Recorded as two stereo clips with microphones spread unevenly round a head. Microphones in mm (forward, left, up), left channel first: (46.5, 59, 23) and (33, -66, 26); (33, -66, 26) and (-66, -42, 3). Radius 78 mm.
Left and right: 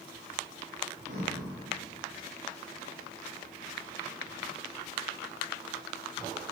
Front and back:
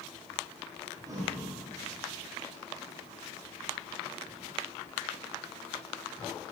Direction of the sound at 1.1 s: 135° right.